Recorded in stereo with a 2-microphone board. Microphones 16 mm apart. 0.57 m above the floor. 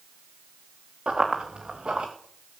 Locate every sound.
1.1 s running footsteps: 80° right, 3 m; by 2.1 s 75° right (ahead or behind), 3 m